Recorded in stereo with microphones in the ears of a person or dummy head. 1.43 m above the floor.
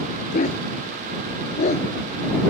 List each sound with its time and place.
0.3 s a dog barking: 55° left (ahead or behind); by 1.9 s 50° left (ahead or behind)